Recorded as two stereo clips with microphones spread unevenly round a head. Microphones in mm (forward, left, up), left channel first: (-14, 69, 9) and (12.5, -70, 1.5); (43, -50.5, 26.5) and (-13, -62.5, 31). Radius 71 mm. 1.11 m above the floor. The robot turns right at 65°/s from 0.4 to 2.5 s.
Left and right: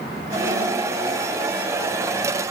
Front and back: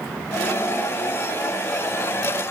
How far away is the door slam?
I don't hear a door slam.